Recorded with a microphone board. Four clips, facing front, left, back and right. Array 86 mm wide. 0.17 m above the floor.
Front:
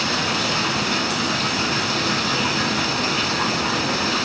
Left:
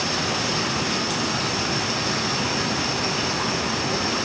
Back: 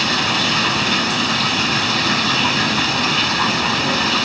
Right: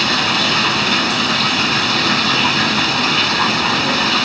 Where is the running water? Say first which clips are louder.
Right 7 dB, back 3 dB; 115° right, 1.2 m.